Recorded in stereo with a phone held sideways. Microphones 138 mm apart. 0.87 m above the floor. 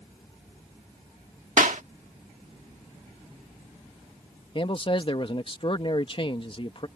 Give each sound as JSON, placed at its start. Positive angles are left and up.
{"t": 1.6, "sound": "a clap", "side_deg": -70}
{"t": 4.5, "sound": "a man speaking", "side_deg": 40}